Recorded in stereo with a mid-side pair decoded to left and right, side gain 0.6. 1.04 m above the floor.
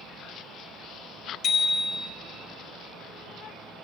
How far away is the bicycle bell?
About 2.5 m.